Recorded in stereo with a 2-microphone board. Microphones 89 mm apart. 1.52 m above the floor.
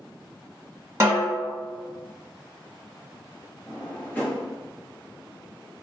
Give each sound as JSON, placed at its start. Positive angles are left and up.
{"t": 1.0, "sound": "a snare drum", "side_deg": -30, "distance_m": 1.5}
{"t": 3.7, "sound": "a drawer", "side_deg": 20, "distance_m": 1.0}